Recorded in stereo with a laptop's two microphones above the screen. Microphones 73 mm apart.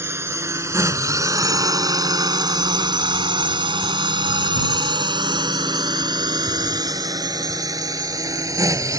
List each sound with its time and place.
0.0 s a drone: 35° right (ahead or behind); by 9.0 s 45° right (ahead or behind)